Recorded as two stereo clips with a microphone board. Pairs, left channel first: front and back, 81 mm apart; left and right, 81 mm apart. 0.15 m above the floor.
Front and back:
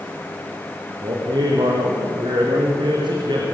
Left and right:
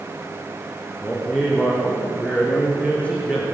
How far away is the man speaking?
About 5 m.